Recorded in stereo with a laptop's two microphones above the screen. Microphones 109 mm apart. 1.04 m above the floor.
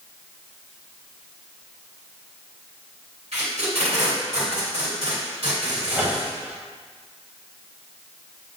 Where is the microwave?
10° right (ahead or behind), 1.2 m.